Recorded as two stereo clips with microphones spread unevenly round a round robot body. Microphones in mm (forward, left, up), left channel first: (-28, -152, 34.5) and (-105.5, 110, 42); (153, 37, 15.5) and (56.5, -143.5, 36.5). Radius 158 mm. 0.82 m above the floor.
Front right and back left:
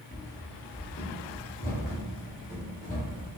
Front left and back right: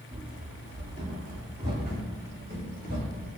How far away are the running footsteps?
About 1.1 m.